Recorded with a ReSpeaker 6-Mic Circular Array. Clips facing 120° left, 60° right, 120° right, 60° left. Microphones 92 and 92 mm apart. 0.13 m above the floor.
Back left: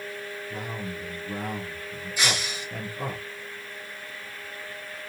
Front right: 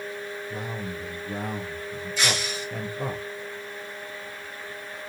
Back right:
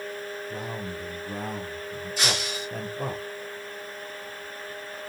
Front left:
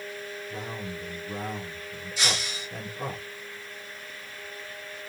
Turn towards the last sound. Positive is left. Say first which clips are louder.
# front right 1 dB, back right 2 dB
turn(degrees=-165)